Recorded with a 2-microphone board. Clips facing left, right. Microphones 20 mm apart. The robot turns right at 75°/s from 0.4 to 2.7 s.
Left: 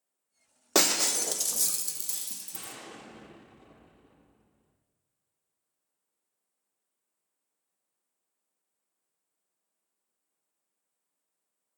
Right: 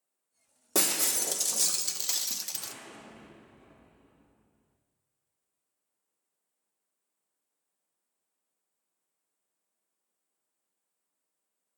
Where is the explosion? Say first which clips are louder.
Right 1 dB; 70° left (ahead or behind), 4 m; by 4.8 s 55° left (ahead or behind), 4 m.